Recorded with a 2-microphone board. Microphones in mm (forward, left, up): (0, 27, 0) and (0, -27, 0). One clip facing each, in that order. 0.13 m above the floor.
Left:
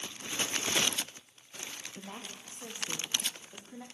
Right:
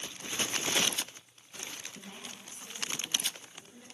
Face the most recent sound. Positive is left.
turn(degrees=80)